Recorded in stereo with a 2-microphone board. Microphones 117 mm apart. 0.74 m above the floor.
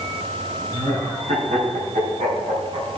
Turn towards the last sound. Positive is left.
turn(degrees=-75)  # may be behind; listen again after turning